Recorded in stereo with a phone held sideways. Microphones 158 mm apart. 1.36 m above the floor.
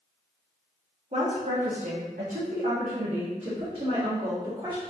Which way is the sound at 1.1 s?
45° right (ahead or behind).